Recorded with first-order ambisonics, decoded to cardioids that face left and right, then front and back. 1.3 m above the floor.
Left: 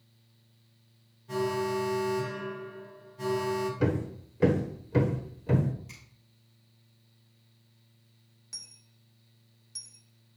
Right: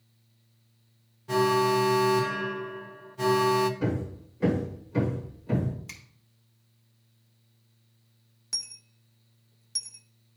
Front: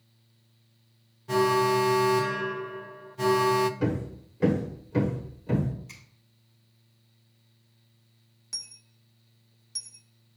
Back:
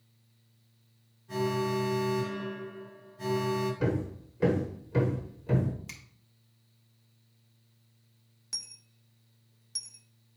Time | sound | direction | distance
1.3 | an alarm | 35° right | 0.8 m
3.8 | hammering | 90° left | 1.1 m
5.9 | a finger snap | 145° right | 2 m
8.5 | a dropped coin | 100° right | 0.6 m